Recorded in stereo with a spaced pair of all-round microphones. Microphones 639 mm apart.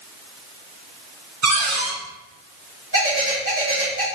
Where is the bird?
25° right (ahead or behind), 1.9 m.